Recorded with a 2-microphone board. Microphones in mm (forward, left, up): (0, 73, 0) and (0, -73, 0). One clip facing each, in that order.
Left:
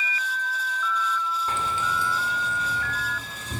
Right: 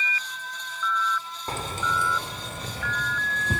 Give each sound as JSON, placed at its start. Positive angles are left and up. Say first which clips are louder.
{"t": 1.5, "sound": "keys jangling", "louder": "left 2 dB", "side_deg": -35, "distance_m": 1.2}